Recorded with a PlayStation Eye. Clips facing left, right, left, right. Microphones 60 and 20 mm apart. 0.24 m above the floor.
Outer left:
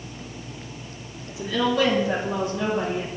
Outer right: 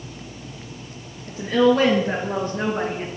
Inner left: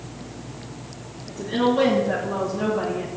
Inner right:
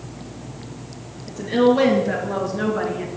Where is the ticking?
No ticking in this recording.